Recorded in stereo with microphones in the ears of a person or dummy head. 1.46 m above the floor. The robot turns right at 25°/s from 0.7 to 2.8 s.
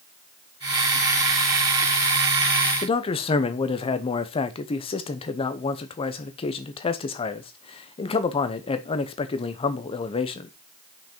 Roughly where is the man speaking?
Left.